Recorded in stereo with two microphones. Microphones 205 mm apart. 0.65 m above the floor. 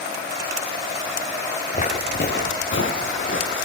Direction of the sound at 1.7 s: 35° left (ahead or behind).